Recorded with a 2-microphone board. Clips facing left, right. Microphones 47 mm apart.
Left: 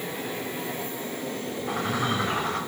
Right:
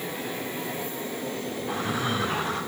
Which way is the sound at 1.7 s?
60° left (ahead or behind).